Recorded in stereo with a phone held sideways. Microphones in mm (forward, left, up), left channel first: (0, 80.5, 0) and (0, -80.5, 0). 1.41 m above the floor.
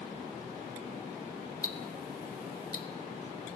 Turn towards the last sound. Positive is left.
turn(degrees=65)  # may be behind; listen again after turning